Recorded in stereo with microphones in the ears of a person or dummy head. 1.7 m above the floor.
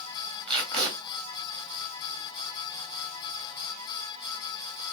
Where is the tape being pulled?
30° right (ahead or behind), 2.0 m.